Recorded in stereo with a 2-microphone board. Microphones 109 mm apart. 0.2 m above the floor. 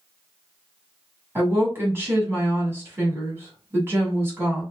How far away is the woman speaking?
About 1.6 m.